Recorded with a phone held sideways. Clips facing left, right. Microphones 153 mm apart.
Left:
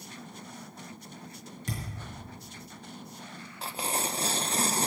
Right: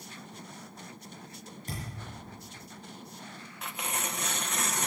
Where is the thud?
85° left, 5.5 m.